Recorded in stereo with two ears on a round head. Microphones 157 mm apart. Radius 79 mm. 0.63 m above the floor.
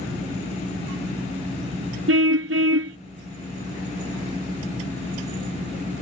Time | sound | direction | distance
2.1 | a car horn | 75° right (ahead or behind) | ?